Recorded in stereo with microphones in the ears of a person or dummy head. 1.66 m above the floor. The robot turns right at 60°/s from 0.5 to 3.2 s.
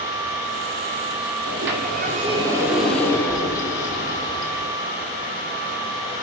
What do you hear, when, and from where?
1.5 s a sliding door: 85° right, 2.5 m; by 4.8 s 20° left, 2.5 m